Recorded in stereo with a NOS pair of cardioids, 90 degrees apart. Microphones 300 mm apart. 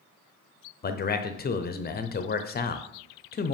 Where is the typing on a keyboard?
No typing on a keyboard in this recording.